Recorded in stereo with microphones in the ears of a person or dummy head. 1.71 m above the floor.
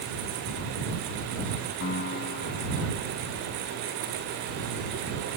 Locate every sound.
1.8 s a piano: 60° left (ahead or behind)